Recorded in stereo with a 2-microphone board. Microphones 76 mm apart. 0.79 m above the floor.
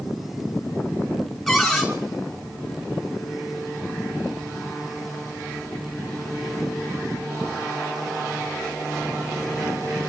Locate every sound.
1.5 s a cupboard door: centre (ahead or behind), 5 m